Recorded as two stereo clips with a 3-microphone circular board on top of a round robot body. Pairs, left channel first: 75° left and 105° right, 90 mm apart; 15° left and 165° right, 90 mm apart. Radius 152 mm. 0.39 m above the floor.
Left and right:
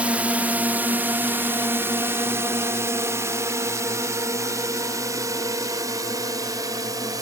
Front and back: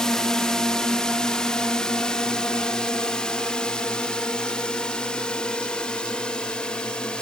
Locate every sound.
0.0 s a drone: 55° right; by 7.2 s 65° right